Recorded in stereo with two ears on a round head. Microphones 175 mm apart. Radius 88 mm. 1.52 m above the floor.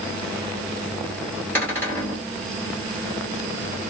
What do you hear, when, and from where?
1.6 s a cupboard door: 10° left (ahead or behind), 2 m